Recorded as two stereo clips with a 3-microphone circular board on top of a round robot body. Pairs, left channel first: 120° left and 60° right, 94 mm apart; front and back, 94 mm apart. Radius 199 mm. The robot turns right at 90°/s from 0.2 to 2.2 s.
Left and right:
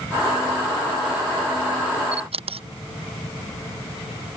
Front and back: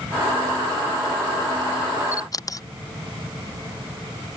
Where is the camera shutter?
60° right; by 2.7 s 50° right.